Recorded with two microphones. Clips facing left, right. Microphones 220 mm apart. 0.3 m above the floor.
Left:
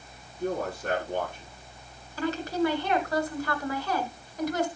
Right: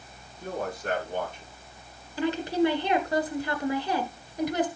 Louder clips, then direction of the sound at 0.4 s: Left 3 dB; 75° left (ahead or behind).